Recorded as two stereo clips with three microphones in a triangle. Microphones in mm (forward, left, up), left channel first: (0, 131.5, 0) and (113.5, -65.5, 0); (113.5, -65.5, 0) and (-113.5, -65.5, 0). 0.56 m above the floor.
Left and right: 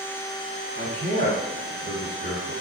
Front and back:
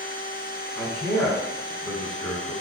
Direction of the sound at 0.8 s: 65° right.